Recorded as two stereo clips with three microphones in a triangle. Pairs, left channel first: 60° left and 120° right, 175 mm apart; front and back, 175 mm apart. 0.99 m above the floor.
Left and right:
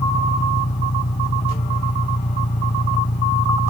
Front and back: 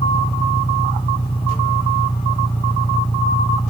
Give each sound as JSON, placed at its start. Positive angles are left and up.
{"t": 0.0, "sound": "an engine running", "azimuth_deg": 60}